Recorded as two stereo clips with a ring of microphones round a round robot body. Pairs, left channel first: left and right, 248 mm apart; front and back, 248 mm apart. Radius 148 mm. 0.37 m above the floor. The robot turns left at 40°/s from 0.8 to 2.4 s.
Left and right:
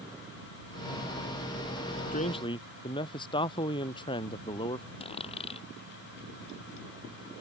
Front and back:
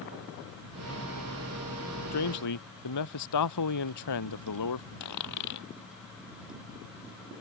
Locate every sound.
2.1 s a man speaking: 30° left; by 4.9 s 15° left
5.0 s a dropped coin: 20° left